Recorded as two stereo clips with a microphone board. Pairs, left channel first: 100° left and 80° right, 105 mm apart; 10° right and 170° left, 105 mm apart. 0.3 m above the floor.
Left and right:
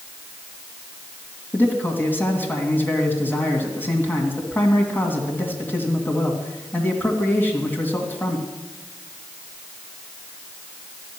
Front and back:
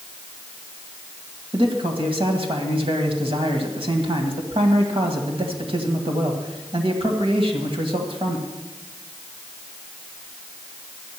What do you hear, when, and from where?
1.5 s a man speaking: 170° left, 2 m